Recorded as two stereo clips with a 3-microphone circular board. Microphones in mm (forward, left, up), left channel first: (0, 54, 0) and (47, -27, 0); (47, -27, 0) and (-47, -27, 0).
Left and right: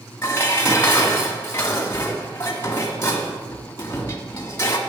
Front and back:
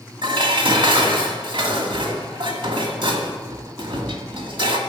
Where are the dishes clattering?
Straight behind, 2.0 m.